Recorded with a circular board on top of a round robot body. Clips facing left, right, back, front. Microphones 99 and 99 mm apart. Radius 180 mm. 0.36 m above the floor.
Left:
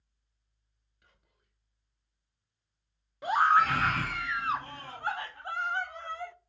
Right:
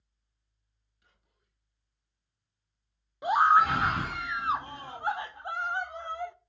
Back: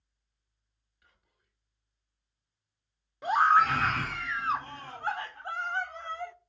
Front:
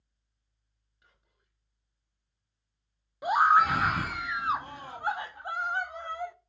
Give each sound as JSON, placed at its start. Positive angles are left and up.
{"t": 1.0, "sound": "whispering", "azimuth_deg": 65, "distance_m": 3.5}
{"t": 3.2, "sound": "a scream", "azimuth_deg": -55, "distance_m": 0.8}